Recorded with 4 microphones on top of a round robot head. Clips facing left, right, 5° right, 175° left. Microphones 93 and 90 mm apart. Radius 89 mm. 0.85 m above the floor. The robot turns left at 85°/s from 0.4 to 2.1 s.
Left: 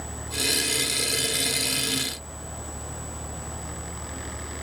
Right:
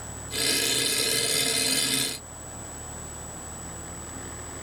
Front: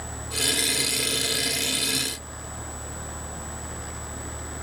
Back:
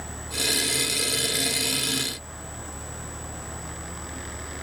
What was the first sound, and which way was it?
Only background noise.